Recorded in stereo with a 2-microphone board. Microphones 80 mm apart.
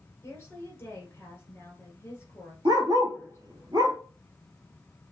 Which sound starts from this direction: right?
A dog barking, at 2.6 s.